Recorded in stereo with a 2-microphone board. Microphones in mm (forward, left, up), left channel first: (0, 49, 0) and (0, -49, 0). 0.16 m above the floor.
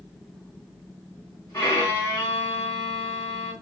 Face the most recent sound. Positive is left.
turn(degrees=25)  # may be behind; listen again after turning